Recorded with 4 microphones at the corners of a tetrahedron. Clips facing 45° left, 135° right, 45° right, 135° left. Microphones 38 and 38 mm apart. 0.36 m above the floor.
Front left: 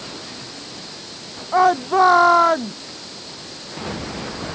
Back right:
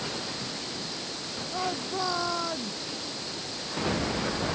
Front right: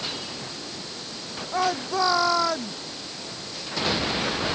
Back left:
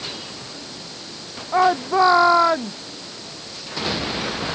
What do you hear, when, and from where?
1.5 s a shout: 75° left